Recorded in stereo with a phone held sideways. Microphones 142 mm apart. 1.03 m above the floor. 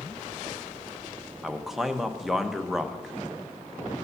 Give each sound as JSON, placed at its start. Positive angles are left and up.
{"t": 1.4, "sound": "a man speaking", "side_deg": 0, "distance_m": 0.7}